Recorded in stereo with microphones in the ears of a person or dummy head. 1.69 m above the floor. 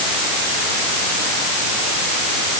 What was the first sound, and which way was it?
Only background noise.